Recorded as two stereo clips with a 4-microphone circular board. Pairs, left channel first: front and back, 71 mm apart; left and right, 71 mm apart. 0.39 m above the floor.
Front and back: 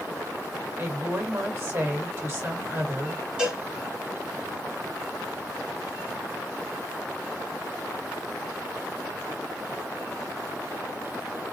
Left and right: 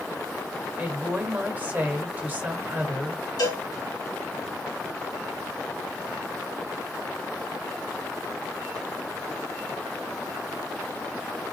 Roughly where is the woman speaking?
Behind right.